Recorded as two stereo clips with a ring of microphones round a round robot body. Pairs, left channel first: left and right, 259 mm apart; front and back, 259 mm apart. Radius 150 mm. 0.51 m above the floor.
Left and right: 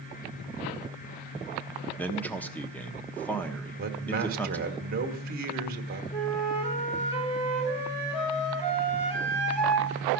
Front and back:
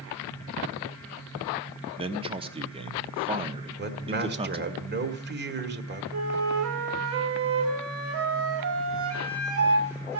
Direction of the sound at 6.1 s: 155° left.